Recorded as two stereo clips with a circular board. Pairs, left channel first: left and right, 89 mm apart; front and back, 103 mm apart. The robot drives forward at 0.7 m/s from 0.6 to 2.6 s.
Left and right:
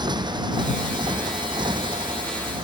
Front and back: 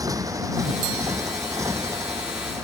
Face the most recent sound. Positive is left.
turn(degrees=-115)